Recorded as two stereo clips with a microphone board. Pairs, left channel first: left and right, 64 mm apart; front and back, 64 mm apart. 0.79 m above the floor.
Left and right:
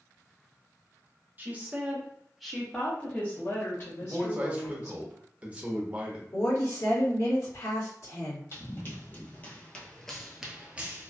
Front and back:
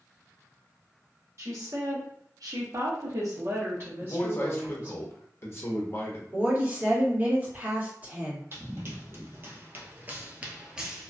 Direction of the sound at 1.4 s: 145° right.